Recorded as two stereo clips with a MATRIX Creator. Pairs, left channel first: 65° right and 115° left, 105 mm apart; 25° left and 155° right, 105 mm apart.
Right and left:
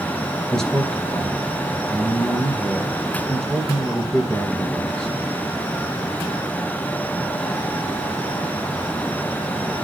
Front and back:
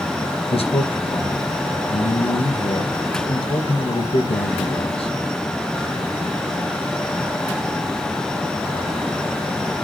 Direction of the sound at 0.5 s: 15° left.